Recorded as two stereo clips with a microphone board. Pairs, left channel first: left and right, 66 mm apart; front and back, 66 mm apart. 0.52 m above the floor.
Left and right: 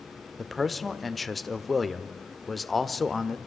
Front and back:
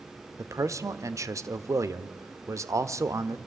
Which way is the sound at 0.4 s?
Straight behind.